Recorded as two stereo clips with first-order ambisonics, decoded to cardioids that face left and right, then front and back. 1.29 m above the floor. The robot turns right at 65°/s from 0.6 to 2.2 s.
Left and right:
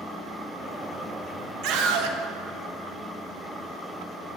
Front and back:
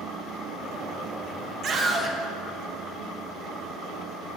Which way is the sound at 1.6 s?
125° right.